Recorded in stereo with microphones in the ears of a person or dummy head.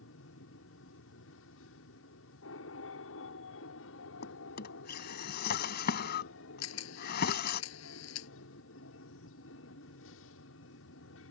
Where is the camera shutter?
75° left (ahead or behind).